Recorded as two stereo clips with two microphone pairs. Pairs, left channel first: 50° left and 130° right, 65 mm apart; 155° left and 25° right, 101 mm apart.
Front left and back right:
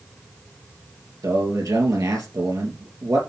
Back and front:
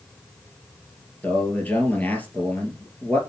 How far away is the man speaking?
About 3 m.